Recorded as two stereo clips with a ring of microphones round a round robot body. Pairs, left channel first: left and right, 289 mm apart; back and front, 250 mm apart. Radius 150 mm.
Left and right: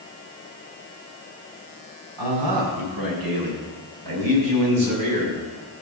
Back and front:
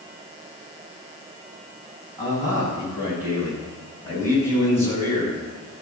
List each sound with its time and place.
2.2 s a man speaking: 85° right, 6.5 m; by 5.4 s 75° right, 5 m